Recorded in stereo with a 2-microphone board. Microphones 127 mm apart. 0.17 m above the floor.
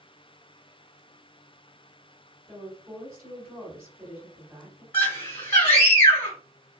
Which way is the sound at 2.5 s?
10° right (ahead or behind).